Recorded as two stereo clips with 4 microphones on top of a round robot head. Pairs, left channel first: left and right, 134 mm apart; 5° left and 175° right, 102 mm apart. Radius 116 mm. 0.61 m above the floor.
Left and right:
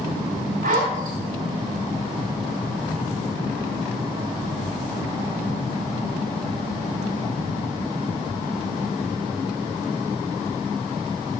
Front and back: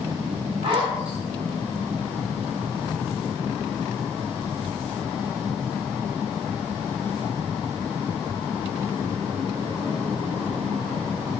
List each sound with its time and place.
0.6 s a zipper: 125° right, 2.5 m